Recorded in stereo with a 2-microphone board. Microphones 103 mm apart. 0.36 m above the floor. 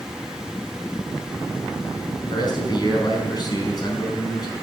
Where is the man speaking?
40° left (ahead or behind), 4 m.